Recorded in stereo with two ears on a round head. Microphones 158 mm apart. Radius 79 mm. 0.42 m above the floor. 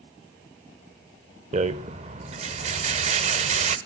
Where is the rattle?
35° right (ahead or behind), 0.5 m.